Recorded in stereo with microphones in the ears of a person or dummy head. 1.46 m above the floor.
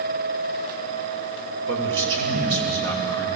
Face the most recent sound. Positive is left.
turn(degrees=-70)  # may be behind; listen again after turning